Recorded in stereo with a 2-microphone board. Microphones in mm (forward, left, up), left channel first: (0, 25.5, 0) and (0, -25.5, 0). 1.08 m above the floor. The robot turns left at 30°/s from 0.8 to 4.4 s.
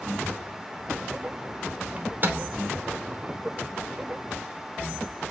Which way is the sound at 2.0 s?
30° right (ahead or behind).